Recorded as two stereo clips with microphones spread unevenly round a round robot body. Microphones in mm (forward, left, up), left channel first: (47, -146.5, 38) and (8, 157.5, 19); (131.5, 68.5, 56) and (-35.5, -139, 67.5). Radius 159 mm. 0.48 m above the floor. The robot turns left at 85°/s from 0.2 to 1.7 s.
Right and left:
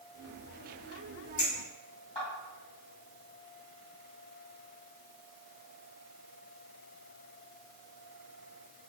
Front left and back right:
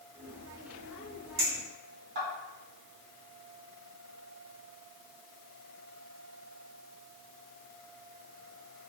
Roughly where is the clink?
Behind right.